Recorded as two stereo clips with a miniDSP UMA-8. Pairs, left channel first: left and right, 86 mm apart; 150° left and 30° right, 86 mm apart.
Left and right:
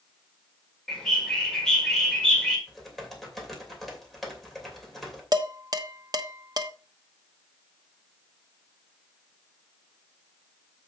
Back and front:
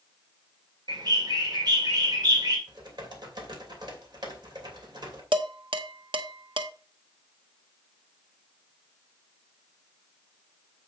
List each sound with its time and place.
0.9 s a bird: 5° left, 2 m
2.7 s typing on a keyboard: straight ahead, 2.5 m
5.3 s dishes clattering: 50° right, 0.9 m